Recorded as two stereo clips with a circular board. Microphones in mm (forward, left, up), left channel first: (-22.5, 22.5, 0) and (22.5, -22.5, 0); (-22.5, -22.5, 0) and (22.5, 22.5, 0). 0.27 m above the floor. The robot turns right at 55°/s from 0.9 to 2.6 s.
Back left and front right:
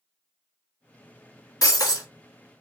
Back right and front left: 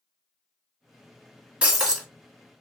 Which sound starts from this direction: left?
Breaking glass, at 1.6 s.